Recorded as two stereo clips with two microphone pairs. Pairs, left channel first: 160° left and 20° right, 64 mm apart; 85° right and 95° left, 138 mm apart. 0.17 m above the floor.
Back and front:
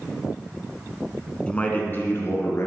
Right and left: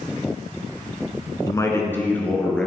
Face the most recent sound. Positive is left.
turn(degrees=-170)